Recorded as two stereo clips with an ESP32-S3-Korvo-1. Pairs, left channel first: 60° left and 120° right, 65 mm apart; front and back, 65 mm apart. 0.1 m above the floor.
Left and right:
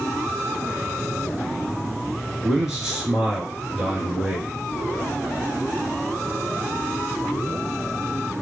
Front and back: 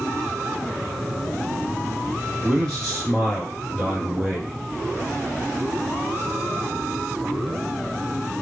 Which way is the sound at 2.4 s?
55° right.